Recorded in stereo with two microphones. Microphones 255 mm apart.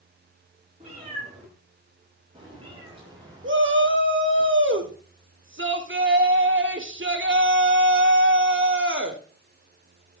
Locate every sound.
0.8 s a cat meowing: 25° right (ahead or behind), 7 m; by 4.4 s 15° right (ahead or behind), 4.5 m
3.4 s a shout: 50° right (ahead or behind), 1.8 m